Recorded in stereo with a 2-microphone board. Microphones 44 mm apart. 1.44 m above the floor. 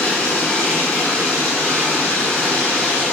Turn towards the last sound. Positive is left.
turn(degrees=40)  # may be behind; listen again after turning